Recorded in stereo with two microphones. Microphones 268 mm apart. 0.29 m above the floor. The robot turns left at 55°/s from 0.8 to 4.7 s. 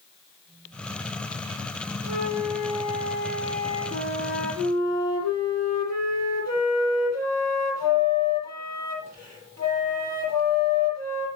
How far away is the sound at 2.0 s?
About 3 m.